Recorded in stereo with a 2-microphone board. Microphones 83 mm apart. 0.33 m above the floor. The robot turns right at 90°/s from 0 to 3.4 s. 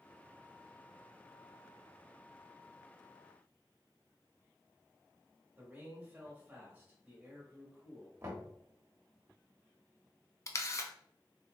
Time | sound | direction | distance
5.6 | a man speaking | 20° right (ahead or behind) | 1.6 m
8.2 | knocking | 30° right (ahead or behind) | 1.2 m
10.5 | a camera shutter | 40° left (ahead or behind) | 0.5 m